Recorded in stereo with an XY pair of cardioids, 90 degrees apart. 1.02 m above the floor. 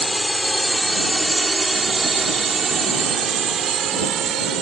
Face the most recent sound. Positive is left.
turn(degrees=-75)